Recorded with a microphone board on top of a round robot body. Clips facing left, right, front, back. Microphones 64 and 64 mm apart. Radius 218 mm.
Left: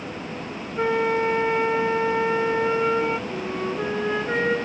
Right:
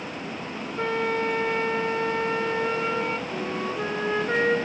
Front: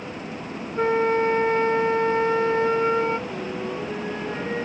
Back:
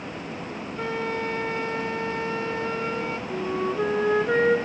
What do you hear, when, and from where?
0.8 s a flute: 25° left, 1.5 m
3.3 s a flute: 175° right, 2.5 m